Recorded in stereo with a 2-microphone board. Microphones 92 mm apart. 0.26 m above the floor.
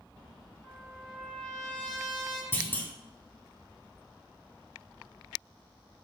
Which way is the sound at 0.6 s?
5° left (ahead or behind).